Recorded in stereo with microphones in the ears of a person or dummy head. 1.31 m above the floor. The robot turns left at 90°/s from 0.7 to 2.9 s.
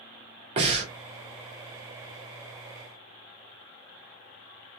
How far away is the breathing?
About 0.9 m.